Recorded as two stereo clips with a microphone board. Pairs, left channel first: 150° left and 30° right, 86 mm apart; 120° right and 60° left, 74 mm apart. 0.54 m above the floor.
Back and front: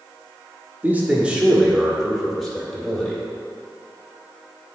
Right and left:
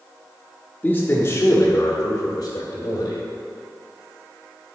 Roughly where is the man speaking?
Right.